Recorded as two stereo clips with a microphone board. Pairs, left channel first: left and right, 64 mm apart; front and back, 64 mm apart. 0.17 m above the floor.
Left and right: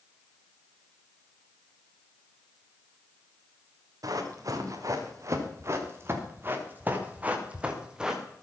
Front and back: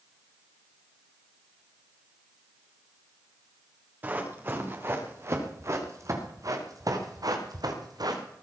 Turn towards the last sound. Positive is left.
turn(degrees=-170)